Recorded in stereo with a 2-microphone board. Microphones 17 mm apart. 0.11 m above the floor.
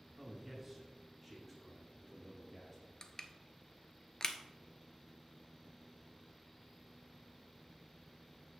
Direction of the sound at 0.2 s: 10° right (ahead or behind).